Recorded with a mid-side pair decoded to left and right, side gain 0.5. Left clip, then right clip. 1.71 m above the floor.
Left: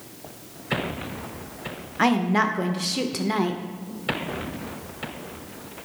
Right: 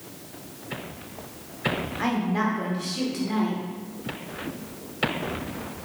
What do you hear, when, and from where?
2.0 s a woman speaking: 55° left, 0.6 m